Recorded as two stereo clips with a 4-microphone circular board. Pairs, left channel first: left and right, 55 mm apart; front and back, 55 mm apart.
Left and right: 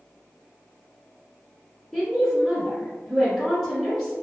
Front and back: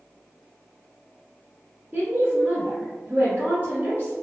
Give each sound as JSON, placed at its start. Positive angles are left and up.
{"t": 1.9, "sound": "a woman speaking", "azimuth_deg": 180, "distance_m": 1.5}